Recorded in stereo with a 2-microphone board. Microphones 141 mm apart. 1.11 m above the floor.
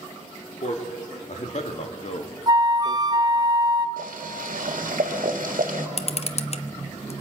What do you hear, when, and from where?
0.6 s a man speaking: 55° left (ahead or behind), 3 m
2.5 s a flute: 30° right (ahead or behind), 0.7 m
4.0 s boiling: 75° right (ahead or behind), 2 m
6.0 s a camera shutter: 50° left (ahead or behind), 0.9 m